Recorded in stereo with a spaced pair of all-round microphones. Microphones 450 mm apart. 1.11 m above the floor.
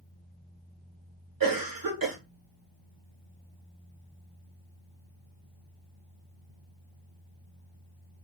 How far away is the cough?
About 1.1 m.